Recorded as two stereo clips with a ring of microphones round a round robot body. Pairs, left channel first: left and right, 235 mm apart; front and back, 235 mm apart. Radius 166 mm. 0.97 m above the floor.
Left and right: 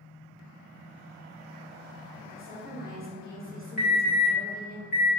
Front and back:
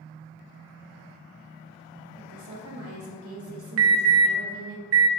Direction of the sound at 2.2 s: 170° right.